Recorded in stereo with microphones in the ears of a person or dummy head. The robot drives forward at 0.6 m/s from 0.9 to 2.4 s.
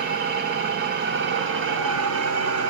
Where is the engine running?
50° right (ahead or behind), 1.3 m; by 2.7 s 70° right (ahead or behind), 1.1 m.